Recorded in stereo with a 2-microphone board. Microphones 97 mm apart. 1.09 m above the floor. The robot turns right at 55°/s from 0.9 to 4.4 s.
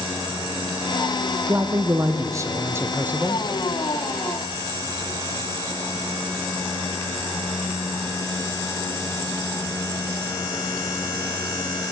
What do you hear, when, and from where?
1.5 s a man speaking: 125° right, 0.6 m; by 3.4 s 15° right, 0.6 m